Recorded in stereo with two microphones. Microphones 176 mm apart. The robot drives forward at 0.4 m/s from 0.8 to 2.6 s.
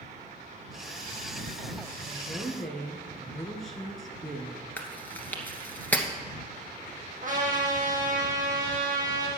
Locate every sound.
2.1 s a woman speaking: centre (ahead or behind), 2.5 m
4.8 s chewing: 10° left (ahead or behind), 1.3 m
7.2 s a trumpet: 55° right (ahead or behind), 3 m